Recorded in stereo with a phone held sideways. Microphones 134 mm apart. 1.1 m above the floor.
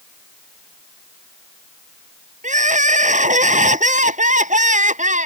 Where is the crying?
75° right (ahead or behind).